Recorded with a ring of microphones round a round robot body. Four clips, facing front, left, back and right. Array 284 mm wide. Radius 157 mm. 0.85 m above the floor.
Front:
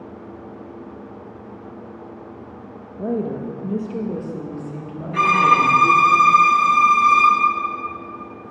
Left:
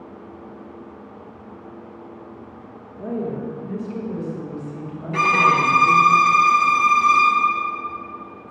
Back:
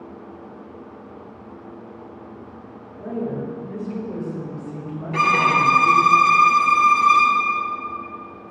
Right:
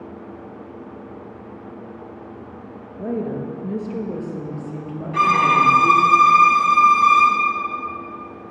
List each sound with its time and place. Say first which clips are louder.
3.0 s a woman speaking: right 1 dB, front 3 dB; 20° right, 1.3 m; by 6.1 s 55° right, 2.5 m
5.1 s a violin: right 1 dB, front 3 dB; 135° left, 1.7 m